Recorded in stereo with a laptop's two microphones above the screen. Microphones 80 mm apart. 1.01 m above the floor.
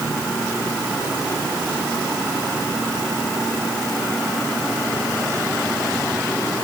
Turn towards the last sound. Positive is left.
No sound to turn to.